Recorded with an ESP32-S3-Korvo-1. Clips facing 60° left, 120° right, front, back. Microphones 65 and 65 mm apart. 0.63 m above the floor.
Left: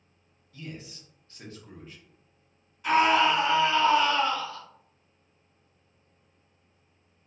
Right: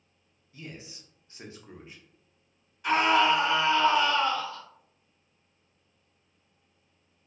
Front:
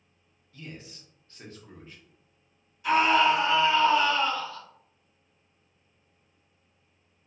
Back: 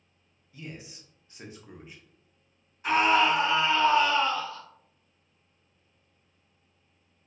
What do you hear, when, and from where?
0.5 s a man speaking: 135° right, 0.5 m
2.8 s a scream: 145° left, 1.7 m